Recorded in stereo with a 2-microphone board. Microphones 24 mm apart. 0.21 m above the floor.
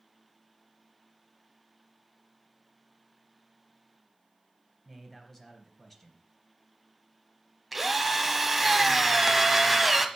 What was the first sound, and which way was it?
A man speaking, 10° left (ahead or behind).